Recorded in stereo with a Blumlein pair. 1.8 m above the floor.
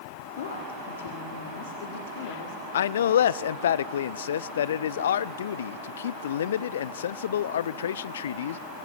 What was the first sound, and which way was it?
A woman speaking, 60° left.